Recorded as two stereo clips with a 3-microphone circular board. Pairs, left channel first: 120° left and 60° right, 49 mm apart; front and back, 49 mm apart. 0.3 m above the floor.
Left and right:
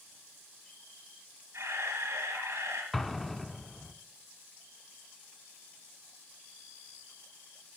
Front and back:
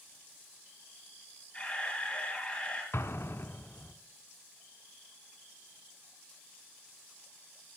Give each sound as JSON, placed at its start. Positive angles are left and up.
{"t": 1.5, "sound": "a camera shutter", "azimuth_deg": -70, "distance_m": 3.5}
{"t": 2.9, "sound": "an explosion", "azimuth_deg": 35, "distance_m": 0.6}